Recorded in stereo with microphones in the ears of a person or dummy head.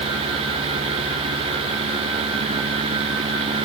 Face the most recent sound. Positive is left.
No sound to turn to.